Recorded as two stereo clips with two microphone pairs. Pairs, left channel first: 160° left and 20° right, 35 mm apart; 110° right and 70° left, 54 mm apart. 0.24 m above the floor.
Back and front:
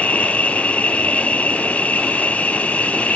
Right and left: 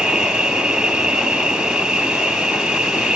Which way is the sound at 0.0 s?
145° left.